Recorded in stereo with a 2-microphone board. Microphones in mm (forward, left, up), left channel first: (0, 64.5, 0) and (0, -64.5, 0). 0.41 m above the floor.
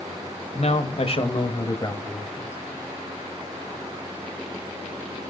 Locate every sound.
0.5 s a man speaking: 55° left (ahead or behind), 2 m; by 2.6 s 15° left (ahead or behind), 3 m